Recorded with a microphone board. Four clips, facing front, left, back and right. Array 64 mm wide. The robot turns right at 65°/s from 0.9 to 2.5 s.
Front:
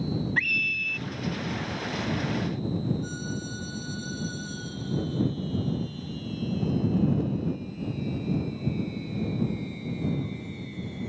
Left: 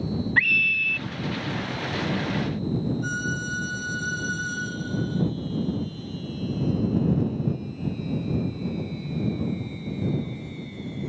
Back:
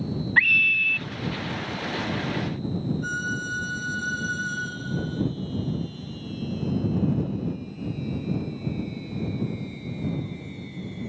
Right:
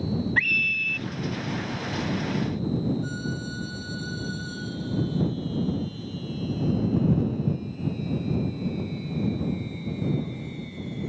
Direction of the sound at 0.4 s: 165° left.